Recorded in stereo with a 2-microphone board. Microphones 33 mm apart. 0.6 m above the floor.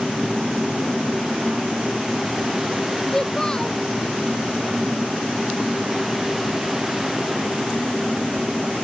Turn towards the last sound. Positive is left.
turn(degrees=20)  # may be behind; listen again after turning